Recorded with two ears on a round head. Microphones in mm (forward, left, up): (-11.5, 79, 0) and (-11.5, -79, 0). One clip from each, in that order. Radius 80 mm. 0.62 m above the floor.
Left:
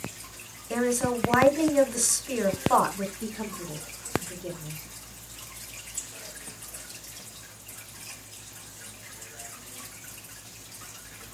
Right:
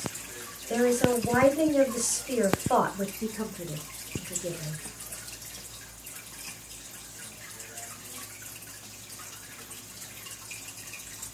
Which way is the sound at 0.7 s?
20° left (ahead or behind).